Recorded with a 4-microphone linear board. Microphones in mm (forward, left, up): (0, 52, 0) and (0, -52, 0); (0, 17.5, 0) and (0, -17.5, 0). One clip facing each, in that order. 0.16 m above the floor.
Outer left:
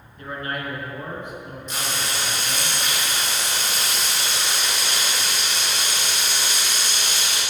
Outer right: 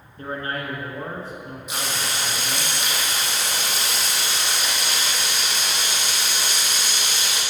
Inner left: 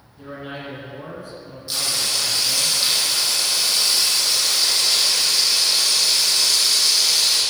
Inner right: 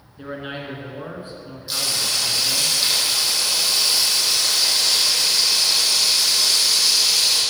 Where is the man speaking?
35° right (ahead or behind), 2 m.